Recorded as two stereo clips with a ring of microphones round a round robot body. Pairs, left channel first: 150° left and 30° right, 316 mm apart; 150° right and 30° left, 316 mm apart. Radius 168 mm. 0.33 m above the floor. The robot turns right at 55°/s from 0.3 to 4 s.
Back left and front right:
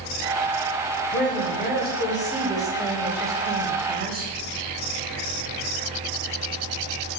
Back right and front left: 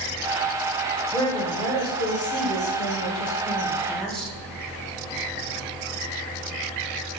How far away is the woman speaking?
About 1.0 m.